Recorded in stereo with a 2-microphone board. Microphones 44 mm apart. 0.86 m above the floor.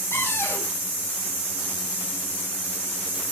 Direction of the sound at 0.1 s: 85° left.